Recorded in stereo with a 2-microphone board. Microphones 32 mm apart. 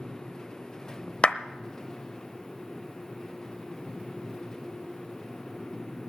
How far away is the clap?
About 0.9 m.